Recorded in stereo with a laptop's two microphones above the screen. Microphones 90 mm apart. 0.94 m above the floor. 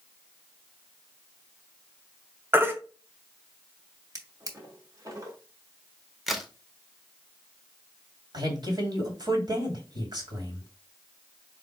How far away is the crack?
About 1.0 m.